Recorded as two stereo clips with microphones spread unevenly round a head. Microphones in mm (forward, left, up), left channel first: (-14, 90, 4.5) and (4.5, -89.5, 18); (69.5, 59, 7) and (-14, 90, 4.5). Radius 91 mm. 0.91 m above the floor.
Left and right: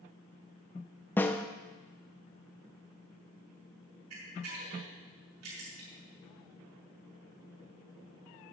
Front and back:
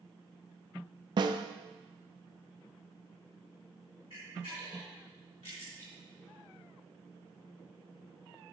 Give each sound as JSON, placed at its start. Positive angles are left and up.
{"t": 1.2, "sound": "a snare drum", "azimuth_deg": 170, "distance_m": 0.8}
{"t": 4.1, "sound": "a camera shutter", "azimuth_deg": -80, "distance_m": 5.5}